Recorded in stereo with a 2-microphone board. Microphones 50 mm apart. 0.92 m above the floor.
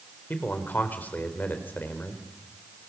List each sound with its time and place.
0.3 s a man speaking: 35° left (ahead or behind), 4 m